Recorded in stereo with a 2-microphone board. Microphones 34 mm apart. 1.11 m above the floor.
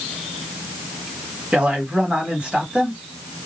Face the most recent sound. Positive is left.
turn(degrees=-35)  # may be behind; listen again after turning